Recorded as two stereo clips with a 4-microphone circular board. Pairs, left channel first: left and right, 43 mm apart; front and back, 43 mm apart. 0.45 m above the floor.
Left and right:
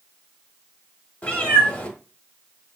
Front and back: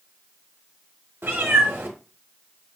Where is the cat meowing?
145° left, 1.0 m.